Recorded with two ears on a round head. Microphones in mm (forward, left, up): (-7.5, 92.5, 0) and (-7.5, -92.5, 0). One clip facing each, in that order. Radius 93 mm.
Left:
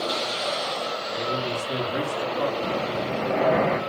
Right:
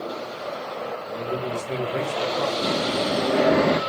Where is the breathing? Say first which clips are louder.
Right 3 dB; 55° right (ahead or behind), 3 m.